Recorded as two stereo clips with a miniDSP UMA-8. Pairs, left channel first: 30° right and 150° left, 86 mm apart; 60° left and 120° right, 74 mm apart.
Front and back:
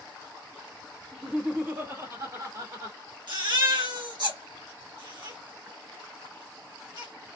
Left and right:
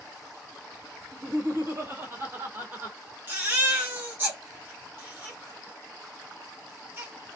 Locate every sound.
1.1 s laughter: 125° right, 1.4 m; by 3.0 s straight behind, 2.5 m
3.3 s a baby crying: straight behind, 1.5 m